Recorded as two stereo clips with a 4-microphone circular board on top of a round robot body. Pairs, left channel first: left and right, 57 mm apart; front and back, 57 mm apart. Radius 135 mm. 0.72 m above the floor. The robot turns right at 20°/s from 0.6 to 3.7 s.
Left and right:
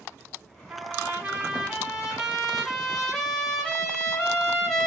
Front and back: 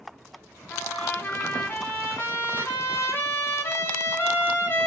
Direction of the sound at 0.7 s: 55° right.